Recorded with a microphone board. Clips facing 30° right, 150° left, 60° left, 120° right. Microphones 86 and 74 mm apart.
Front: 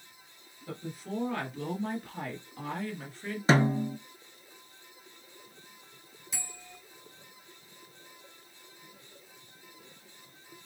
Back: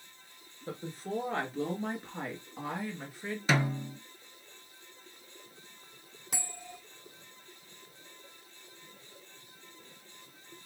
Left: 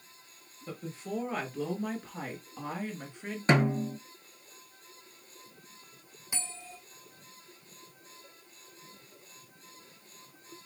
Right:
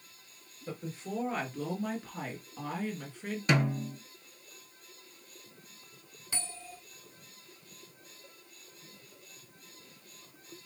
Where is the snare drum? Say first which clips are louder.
Front 6 dB, left 4 dB; 15° left, 0.5 m.